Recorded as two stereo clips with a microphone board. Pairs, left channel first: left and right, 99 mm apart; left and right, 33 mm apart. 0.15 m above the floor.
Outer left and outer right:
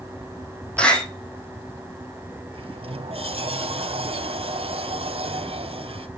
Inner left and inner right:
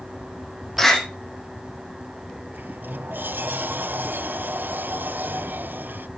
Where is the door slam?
10° left (ahead or behind), 4.5 m.